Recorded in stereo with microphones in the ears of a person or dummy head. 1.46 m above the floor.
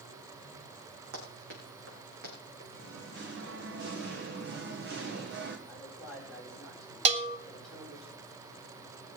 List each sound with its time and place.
1.1 s running footsteps: 65° right (ahead or behind), 4 m; by 2.6 s 50° right (ahead or behind), 5 m
2.7 s singing: 55° right (ahead or behind), 1.2 m
5.7 s a man speaking: 5° left (ahead or behind), 6 m
7.0 s a bell: 40° right (ahead or behind), 1.6 m